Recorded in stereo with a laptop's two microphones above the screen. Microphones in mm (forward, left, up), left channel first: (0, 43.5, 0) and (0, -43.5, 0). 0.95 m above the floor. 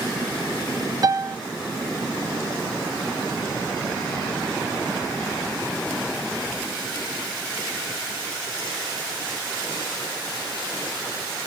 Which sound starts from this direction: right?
A piano, at 1.0 s.